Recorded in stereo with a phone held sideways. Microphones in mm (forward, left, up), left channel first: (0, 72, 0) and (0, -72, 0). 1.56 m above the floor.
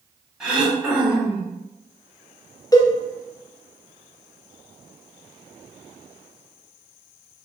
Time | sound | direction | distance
0.4 | throat clearing | 5° right (ahead or behind) | 0.8 m
2.7 | a cowbell | 25° left (ahead or behind) | 0.5 m